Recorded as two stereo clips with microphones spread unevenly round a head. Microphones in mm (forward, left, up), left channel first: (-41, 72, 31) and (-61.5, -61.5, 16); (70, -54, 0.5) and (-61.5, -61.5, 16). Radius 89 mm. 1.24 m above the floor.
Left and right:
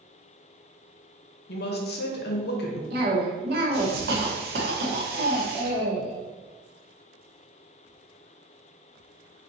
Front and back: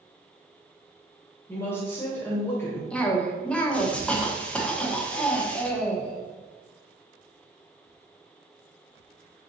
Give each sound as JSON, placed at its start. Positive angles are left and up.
{"t": 1.5, "sound": "a woman speaking", "azimuth_deg": 85, "distance_m": 0.8}
{"t": 2.9, "sound": "a cough", "azimuth_deg": -80, "distance_m": 1.2}